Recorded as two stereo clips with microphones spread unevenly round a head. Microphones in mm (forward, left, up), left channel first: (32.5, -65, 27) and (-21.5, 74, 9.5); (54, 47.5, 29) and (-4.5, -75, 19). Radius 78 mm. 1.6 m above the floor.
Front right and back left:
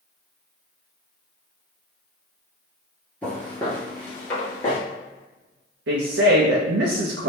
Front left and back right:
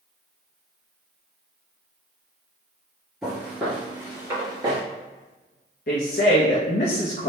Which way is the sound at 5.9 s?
105° left.